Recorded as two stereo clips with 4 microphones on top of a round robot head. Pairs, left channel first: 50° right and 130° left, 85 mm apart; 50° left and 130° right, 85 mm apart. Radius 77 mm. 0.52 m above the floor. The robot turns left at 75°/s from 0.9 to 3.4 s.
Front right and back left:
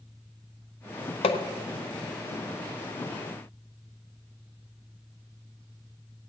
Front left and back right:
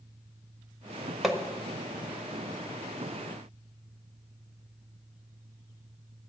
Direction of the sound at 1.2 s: 45° right.